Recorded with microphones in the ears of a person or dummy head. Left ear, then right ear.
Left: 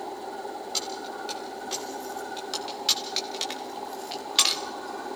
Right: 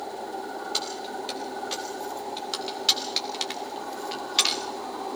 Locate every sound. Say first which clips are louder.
0.7 s keys jangling: right 1 dB; 10° right (ahead or behind), 4 m; by 4.6 s 15° left (ahead or behind), 1.0 m